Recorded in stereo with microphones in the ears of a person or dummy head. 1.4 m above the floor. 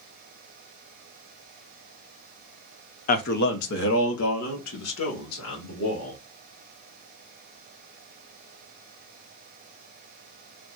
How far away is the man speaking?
About 0.5 m.